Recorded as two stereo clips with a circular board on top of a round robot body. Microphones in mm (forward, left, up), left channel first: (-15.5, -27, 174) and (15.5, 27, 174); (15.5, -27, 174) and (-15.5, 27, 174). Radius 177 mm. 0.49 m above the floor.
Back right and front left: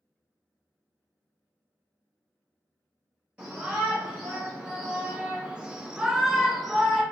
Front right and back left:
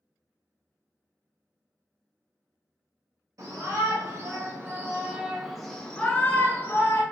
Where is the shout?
130° left, 1.3 m; by 7.0 s 30° right, 1.2 m.